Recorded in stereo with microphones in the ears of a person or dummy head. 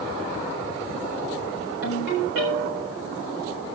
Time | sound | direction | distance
1.8 | a ringtone | 75° right (ahead or behind) | 6.5 m